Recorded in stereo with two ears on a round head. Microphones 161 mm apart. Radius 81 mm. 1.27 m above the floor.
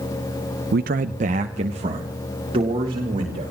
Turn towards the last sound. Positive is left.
turn(degrees=-25)  # may be behind; listen again after turning